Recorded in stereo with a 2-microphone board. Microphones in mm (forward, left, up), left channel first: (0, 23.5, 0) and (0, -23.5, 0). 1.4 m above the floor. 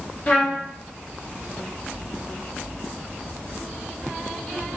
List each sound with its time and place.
0.3 s a trumpet: 30° left (ahead or behind), 0.7 m